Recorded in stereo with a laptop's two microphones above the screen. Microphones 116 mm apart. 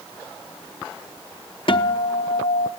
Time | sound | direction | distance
1.7 | a guitar | 50° left (ahead or behind) | 0.6 m